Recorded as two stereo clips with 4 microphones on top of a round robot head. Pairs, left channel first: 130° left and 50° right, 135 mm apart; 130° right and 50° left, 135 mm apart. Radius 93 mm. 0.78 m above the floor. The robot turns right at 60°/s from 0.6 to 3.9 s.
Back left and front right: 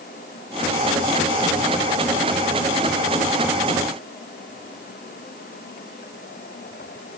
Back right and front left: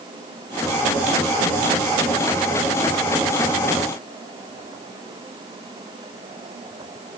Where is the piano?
I don't hear a piano.